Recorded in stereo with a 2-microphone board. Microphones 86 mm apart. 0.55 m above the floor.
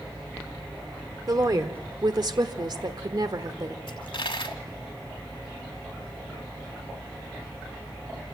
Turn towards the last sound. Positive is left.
turn(degrees=75)  # may be behind; listen again after turning